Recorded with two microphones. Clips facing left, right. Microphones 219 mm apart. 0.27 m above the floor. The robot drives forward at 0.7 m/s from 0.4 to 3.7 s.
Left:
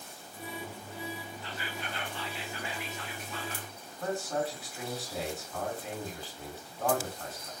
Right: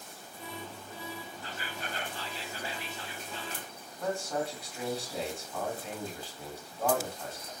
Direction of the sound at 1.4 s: 45° right (ahead or behind).